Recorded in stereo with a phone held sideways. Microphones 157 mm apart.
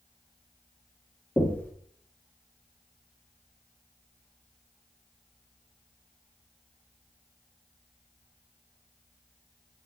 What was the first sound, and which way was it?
Knocking, 10° left (ahead or behind).